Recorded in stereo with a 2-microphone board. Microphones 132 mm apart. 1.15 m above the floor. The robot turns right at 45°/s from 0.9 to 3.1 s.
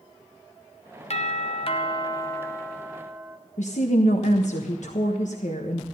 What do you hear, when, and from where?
1.1 s a doorbell: 95° left, 1.0 m; by 3.4 s 175° right, 1.0 m
3.6 s a woman speaking: 65° left (ahead or behind), 1.1 m